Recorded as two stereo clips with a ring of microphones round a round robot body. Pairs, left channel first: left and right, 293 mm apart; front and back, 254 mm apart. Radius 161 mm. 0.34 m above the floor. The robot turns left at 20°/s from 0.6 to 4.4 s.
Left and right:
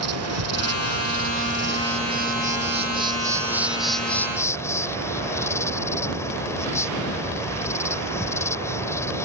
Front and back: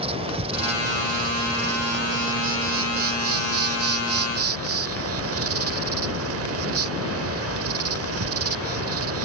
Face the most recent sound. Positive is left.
turn(degrees=170)